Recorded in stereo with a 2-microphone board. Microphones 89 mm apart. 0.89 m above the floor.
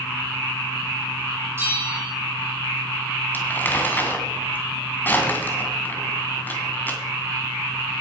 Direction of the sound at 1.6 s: 25° right (ahead or behind).